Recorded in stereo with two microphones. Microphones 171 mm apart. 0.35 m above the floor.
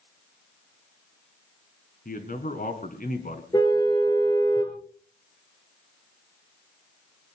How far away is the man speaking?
About 3.5 m.